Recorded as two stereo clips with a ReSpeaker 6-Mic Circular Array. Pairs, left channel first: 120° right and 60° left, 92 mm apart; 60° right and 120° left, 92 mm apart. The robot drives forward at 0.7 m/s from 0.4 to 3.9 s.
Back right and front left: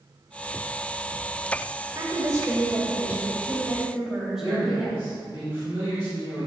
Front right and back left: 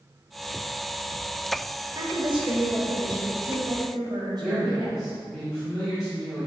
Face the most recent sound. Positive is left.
turn(degrees=-155)